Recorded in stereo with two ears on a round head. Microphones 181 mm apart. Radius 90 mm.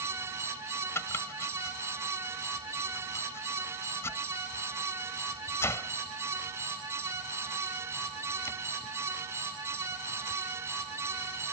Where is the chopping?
15° left (ahead or behind).